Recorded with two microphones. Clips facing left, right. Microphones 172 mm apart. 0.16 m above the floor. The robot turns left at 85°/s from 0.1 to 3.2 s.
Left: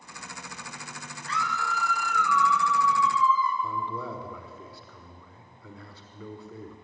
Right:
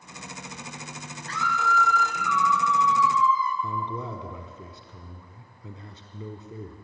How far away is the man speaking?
About 1.1 m.